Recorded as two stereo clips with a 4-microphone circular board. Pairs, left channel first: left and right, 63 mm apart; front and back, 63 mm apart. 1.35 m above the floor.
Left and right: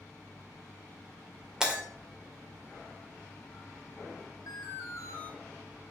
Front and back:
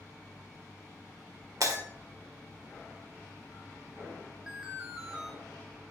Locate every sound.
1.6 s breaking glass: 165° right, 1.8 m
4.5 s an alarm: 105° left, 3 m